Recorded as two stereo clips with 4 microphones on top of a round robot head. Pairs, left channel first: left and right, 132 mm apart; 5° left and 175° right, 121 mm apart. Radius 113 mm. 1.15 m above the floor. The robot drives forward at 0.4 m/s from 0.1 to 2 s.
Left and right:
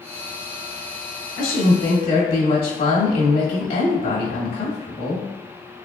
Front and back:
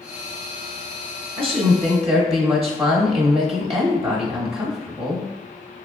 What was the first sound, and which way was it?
A woman speaking, 140° left.